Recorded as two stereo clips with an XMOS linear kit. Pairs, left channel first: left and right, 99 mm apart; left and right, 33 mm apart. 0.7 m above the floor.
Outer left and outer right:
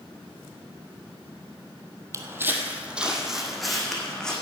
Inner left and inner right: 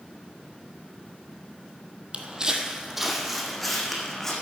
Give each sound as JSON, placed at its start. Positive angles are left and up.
{"t": 2.1, "sound": "footsteps", "side_deg": -30, "distance_m": 1.2}